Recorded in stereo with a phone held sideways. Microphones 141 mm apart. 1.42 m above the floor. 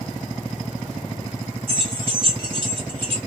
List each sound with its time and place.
1.7 s keys jangling: 35° right (ahead or behind), 1.7 m